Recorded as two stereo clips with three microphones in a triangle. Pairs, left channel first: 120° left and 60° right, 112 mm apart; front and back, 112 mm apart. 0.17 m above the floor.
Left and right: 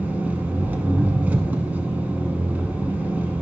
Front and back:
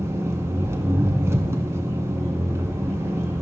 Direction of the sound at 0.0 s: 125° right.